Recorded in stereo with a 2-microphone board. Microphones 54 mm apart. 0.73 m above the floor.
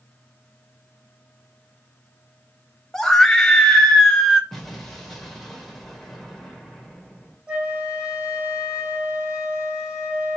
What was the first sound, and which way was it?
A scream, 10° left (ahead or behind).